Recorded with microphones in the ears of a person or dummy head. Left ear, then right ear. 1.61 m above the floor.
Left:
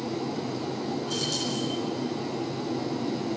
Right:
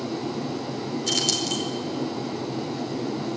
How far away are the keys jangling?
About 4.5 m.